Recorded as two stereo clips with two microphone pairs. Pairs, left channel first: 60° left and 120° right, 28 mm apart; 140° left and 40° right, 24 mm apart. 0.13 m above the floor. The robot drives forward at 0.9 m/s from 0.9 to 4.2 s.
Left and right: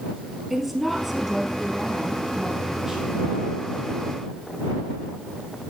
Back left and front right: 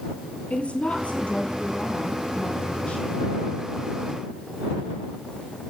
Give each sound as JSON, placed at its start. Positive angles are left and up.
{"t": 0.5, "sound": "a woman speaking", "azimuth_deg": 150, "distance_m": 2.5}